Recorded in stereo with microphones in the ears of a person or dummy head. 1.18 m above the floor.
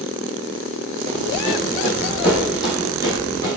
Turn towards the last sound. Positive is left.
turn(degrees=10)  # may be behind; listen again after turning